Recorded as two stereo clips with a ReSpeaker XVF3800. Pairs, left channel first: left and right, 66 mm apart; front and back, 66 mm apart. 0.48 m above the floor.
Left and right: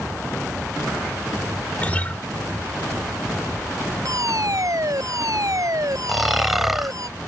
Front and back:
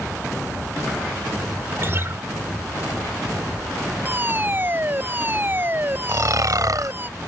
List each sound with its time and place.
1.8 s a guitar: 150° left
4.0 s a fire alarm: 120° right
6.1 s snoring: 175° right